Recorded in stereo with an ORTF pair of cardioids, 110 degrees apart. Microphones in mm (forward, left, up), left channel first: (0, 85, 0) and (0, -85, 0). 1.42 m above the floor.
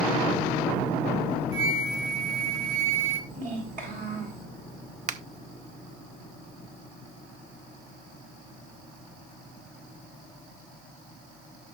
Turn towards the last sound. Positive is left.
turn(degrees=-45)